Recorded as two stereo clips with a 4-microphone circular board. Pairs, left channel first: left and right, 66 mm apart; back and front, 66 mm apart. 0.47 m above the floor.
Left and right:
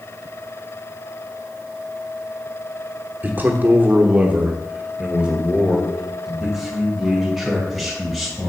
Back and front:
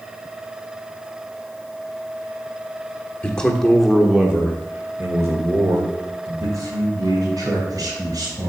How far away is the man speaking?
About 1.1 m.